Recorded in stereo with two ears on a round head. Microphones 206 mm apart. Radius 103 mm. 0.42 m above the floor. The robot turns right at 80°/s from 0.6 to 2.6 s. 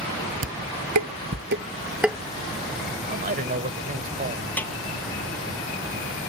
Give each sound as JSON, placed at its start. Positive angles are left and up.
{"t": 0.4, "sound": "dishes clattering", "side_deg": -60}
{"t": 3.1, "sound": "a man speaking", "side_deg": -40}
{"t": 4.6, "sound": "a snare drum", "side_deg": 10}